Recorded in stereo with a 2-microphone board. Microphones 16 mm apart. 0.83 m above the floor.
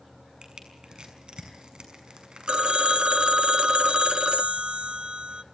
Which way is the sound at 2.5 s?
70° right (ahead or behind).